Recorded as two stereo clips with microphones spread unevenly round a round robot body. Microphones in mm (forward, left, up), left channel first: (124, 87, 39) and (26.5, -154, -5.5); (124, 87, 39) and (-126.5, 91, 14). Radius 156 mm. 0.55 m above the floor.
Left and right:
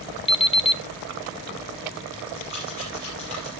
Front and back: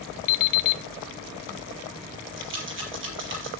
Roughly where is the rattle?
Behind left.